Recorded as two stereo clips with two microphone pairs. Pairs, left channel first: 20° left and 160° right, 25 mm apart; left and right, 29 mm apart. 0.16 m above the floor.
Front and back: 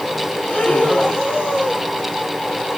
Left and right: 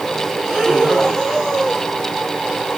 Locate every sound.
0.4 s breathing: straight ahead, 2.5 m